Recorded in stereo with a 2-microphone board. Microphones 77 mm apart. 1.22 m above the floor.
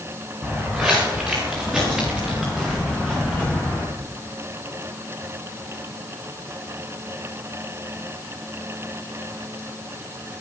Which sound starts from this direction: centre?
Footsteps, at 0.4 s.